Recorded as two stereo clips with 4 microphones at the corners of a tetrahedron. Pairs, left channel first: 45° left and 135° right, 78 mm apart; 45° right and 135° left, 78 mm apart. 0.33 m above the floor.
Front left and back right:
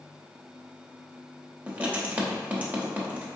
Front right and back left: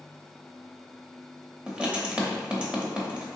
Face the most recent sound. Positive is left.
turn(degrees=-175)